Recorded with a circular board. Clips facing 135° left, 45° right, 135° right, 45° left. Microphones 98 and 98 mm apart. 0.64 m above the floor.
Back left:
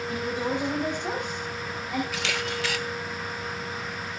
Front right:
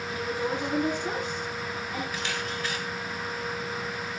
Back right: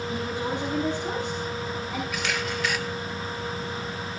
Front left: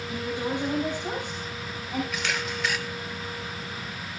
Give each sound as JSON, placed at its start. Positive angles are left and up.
{"t": 0.1, "sound": "a woman speaking", "azimuth_deg": 115, "distance_m": 4.5}
{"t": 2.1, "sound": "a camera shutter", "azimuth_deg": 135, "distance_m": 1.1}